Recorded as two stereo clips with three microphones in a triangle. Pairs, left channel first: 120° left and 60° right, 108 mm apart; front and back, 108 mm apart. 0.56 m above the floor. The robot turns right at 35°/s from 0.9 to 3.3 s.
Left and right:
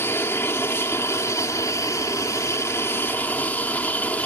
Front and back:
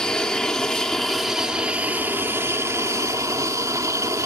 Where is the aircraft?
75° left; by 4.3 s straight behind.